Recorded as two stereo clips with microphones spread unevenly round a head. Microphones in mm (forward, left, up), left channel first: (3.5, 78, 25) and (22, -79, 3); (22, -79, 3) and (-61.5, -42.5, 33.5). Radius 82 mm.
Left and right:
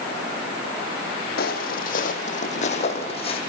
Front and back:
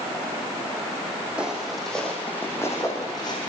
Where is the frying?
I don't hear frying.